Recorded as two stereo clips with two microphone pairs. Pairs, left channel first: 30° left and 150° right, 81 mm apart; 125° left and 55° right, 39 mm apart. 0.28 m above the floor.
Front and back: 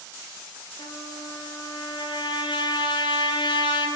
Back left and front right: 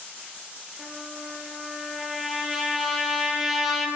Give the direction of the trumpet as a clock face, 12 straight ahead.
11 o'clock.